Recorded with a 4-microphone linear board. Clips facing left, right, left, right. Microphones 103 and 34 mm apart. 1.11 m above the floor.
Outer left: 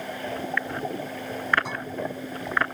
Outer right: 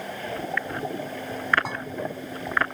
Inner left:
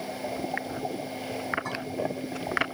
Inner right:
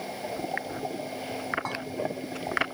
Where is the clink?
65° right (ahead or behind), 7.5 m.